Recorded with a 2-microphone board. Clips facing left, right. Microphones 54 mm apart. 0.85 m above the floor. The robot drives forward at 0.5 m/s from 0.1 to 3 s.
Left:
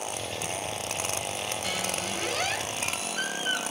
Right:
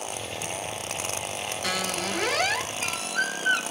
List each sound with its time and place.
1.6 s a squeak: 75° right (ahead or behind), 0.9 m; by 3.6 s 60° right (ahead or behind), 0.9 m